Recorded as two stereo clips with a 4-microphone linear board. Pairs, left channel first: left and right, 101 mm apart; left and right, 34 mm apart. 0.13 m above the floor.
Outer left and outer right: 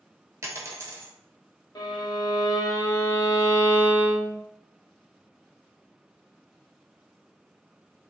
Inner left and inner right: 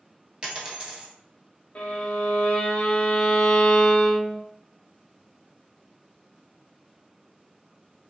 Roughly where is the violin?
Left.